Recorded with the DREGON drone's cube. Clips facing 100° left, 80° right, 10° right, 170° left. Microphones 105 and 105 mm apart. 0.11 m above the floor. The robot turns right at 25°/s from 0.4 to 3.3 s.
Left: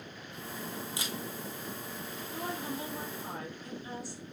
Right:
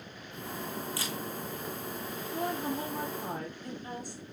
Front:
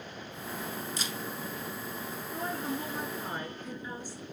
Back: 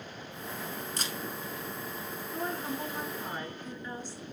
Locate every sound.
1.0 s a camera shutter: 160° left, 0.9 m; by 1.2 s 170° left, 0.9 m
2.3 s a woman speaking: 110° right, 1.7 m; by 4.2 s 85° right, 1.7 m